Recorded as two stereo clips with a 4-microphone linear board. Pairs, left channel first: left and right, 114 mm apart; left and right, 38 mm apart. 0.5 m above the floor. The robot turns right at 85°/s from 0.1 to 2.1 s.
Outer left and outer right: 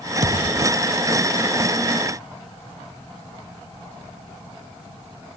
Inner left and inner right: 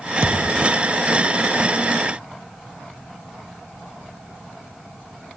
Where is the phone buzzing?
I don't hear a phone buzzing.